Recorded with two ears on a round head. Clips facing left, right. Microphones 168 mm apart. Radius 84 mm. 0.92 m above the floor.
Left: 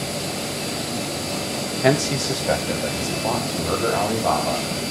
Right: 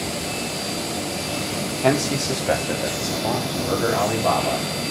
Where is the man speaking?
10° left (ahead or behind), 0.8 m; by 4.7 s 15° right (ahead or behind), 2 m.